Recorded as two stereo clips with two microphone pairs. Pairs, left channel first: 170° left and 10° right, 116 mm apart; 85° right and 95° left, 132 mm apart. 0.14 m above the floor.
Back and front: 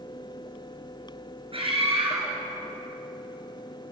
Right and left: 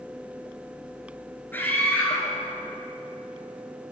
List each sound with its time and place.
1.5 s a scream: 15° right, 2.5 m